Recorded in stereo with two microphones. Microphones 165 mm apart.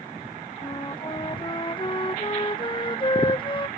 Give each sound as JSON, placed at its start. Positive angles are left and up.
{"t": 0.6, "sound": "a flute", "side_deg": 30}